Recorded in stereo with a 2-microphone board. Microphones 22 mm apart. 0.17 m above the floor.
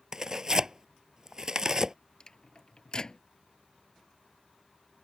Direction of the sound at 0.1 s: 20° right (ahead or behind).